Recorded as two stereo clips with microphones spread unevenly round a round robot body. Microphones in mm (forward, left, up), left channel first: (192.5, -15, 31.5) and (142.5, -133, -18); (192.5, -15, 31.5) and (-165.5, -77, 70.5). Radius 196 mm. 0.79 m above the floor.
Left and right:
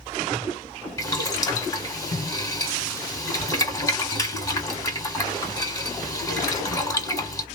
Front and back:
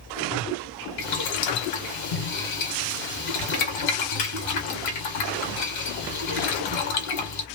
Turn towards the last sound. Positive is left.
turn(degrees=15)